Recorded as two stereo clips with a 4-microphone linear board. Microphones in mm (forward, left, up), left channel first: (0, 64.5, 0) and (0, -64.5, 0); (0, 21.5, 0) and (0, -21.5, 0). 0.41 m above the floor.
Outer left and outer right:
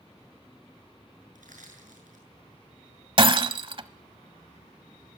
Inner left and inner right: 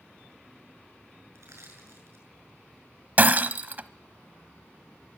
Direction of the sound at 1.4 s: 80° right.